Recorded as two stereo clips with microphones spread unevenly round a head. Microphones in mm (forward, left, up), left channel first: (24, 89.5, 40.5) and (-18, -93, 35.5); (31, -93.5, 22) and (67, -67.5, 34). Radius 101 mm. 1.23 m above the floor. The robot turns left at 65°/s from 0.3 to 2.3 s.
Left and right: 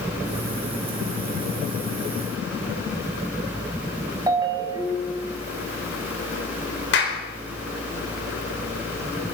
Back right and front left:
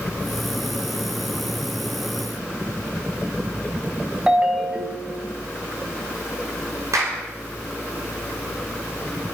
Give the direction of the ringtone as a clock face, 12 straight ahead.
1 o'clock.